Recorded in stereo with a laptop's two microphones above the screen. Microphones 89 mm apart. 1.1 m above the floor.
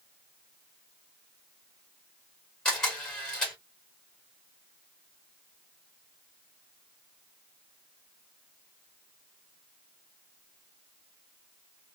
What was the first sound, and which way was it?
A camera shutter, 10° left (ahead or behind).